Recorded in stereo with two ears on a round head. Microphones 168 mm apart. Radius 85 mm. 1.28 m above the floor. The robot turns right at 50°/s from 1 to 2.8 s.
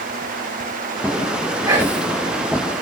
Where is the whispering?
20° right (ahead or behind), 3.5 m; by 2.1 s 5° left (ahead or behind), 3.5 m.